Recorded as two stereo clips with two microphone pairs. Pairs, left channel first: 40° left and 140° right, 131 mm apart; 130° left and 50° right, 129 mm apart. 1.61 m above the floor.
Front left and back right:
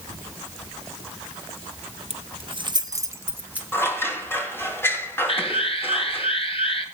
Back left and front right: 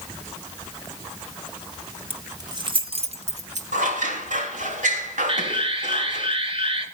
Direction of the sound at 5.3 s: 5° right.